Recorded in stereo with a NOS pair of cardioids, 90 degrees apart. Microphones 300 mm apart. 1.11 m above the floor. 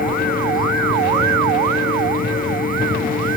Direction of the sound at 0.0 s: 30° left.